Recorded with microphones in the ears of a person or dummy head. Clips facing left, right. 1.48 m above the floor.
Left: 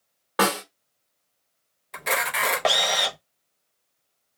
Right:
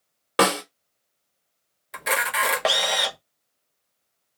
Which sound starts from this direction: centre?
A camera shutter, at 1.9 s.